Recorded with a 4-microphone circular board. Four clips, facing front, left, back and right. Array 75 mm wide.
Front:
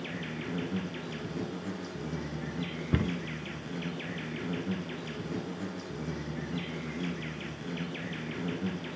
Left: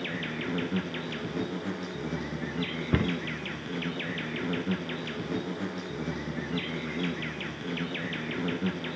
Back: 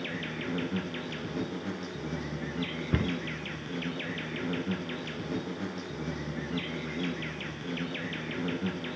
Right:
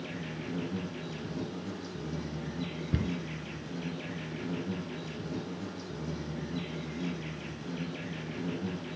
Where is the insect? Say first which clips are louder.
Left 5 dB, back 2 dB; 110° left, 3 m.